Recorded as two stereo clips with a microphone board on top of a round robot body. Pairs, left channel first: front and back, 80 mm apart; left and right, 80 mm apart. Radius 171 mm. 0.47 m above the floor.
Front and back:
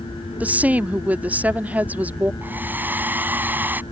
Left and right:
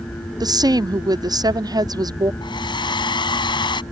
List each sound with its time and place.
0.4 s a woman speaking: 110° right
2.4 s a hair dryer: 110° left